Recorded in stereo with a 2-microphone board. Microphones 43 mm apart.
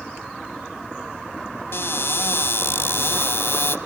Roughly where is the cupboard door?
Left.